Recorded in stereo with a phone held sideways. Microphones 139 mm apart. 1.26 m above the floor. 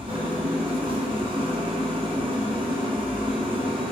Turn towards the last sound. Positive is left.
turn(degrees=-40)  # may be behind; listen again after turning